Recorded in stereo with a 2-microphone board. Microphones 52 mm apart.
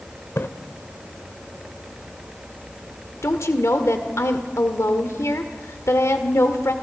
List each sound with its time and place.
0.4 s a splash: 55° left (ahead or behind), 1.1 m
3.2 s a woman speaking: 70° left (ahead or behind), 1.8 m